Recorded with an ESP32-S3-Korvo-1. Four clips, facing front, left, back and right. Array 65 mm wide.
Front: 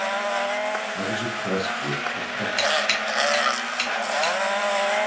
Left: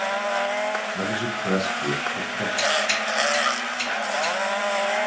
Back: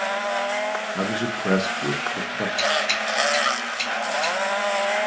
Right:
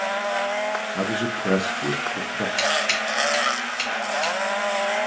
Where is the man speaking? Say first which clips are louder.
Right 1 dB, back 2 dB; 130° right, 0.7 m.